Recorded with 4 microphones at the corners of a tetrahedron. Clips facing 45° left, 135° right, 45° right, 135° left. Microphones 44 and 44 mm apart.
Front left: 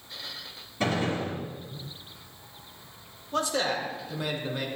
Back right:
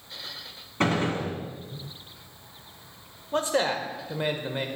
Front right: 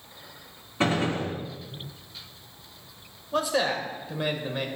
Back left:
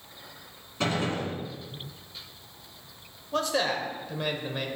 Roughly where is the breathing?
I don't hear breathing.